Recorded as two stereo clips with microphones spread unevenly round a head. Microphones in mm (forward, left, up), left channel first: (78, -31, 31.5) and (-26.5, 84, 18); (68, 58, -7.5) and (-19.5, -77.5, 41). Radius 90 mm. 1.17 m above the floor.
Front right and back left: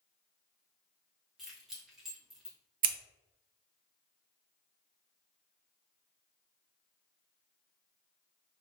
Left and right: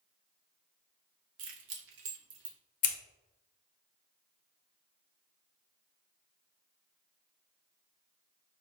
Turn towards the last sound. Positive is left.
turn(degrees=100)